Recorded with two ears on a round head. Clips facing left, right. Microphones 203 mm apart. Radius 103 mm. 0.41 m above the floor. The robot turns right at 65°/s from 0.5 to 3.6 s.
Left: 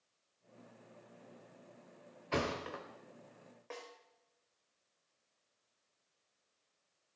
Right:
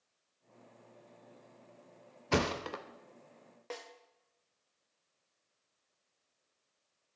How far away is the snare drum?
About 0.8 m.